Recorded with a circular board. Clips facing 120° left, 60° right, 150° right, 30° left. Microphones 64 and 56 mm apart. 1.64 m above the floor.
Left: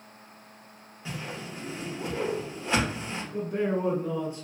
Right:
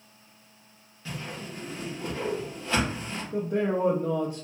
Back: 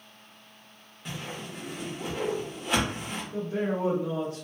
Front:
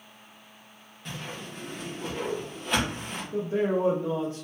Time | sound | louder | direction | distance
1.1 | a whoosh | even, back 1 dB | 140° left | 0.9 m
3.3 | a man speaking | right 2 dB, front 4 dB | 35° right | 0.6 m